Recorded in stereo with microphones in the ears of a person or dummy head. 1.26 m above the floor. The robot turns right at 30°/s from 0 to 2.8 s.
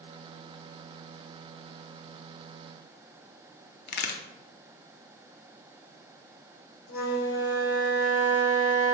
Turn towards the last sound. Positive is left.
turn(degrees=80)